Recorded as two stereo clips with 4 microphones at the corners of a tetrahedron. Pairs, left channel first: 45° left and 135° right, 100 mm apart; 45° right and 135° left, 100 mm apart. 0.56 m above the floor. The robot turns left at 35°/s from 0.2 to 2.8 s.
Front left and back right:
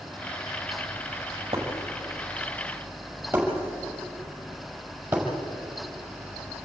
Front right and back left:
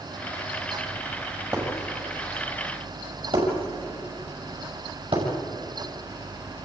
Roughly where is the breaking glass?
Behind.